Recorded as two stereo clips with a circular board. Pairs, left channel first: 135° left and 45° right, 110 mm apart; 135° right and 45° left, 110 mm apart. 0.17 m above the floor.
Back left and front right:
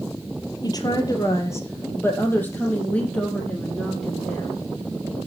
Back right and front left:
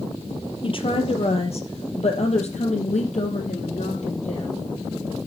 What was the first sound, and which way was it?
A woman speaking, 175° right.